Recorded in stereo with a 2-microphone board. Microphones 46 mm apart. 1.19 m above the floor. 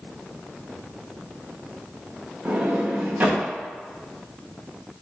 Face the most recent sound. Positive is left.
turn(degrees=-40)  # may be behind; listen again after turning